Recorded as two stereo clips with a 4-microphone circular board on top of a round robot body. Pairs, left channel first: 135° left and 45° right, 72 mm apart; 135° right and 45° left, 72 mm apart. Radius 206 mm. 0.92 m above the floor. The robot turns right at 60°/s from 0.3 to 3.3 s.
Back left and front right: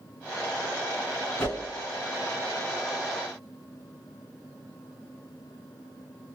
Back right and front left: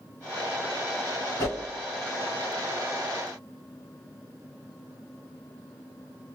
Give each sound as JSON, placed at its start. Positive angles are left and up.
{"t": 1.4, "sound": "a whoosh", "azimuth_deg": -165, "distance_m": 1.9}